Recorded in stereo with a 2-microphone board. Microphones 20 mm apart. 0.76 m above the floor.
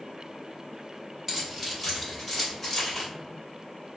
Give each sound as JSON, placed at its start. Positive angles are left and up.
{"t": 1.3, "sound": "keys jangling", "side_deg": -10, "distance_m": 1.3}